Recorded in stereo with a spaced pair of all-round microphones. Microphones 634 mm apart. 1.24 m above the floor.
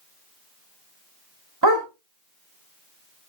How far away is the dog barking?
About 2 m.